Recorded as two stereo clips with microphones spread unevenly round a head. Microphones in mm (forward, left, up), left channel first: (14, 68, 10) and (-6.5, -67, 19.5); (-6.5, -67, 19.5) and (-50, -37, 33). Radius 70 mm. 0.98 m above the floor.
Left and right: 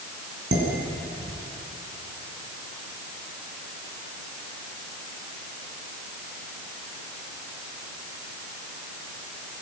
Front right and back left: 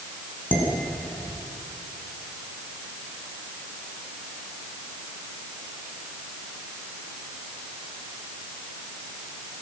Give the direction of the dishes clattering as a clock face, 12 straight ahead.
3 o'clock.